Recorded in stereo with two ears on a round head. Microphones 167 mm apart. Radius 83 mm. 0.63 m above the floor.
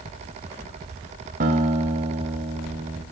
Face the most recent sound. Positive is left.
turn(degrees=-45)  # may be behind; listen again after turning